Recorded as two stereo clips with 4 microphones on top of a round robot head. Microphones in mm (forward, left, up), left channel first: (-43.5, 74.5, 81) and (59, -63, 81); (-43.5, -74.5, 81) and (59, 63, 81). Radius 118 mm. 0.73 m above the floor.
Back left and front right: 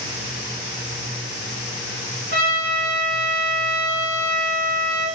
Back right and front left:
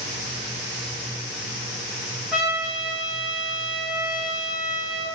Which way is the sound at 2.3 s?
35° right.